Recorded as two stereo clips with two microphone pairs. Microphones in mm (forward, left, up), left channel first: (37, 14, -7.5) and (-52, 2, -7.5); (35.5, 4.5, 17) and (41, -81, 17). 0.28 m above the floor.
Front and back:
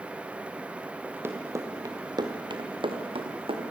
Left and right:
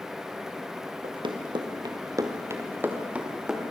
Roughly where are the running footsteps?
Right.